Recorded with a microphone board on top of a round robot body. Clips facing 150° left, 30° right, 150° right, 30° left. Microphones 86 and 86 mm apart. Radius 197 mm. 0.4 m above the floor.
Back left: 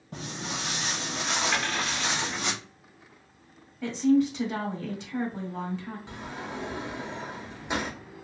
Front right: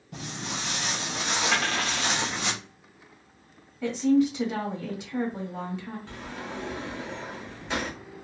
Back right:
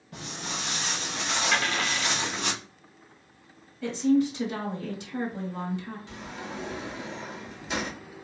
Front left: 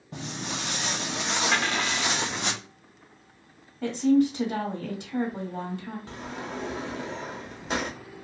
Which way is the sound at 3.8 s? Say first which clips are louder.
Front right 1 dB, front left 2 dB; 50° left.